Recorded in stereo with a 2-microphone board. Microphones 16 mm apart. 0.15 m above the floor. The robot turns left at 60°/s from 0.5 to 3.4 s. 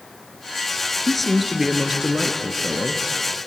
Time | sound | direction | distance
1.1 | a man speaking | 10° left | 2.5 m